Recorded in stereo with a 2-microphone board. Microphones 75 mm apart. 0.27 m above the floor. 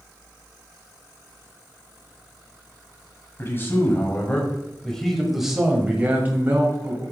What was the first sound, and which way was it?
A man speaking, 35° left (ahead or behind).